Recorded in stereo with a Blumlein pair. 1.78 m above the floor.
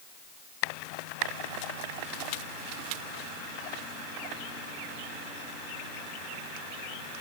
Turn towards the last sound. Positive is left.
No sound to turn to.